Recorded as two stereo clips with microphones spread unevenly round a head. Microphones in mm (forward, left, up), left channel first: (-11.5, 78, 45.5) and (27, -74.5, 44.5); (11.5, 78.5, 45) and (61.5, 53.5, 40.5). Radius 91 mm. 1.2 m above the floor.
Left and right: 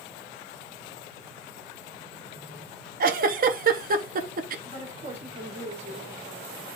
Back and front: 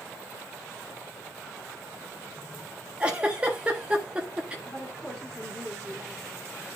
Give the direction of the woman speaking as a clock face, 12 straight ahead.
4 o'clock.